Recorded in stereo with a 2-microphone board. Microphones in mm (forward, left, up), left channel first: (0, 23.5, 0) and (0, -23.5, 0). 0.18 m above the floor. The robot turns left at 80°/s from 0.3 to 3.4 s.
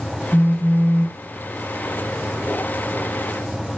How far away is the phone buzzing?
About 2.0 m.